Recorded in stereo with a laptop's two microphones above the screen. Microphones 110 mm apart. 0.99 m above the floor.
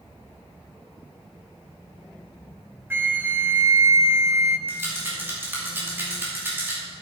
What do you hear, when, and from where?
2.9 s a flute: 20° right (ahead or behind), 0.7 m
4.7 s a rattle: 20° right (ahead or behind), 2.5 m